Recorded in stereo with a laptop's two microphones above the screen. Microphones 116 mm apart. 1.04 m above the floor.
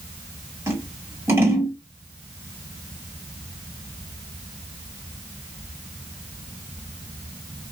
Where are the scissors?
20° right (ahead or behind), 2.0 m.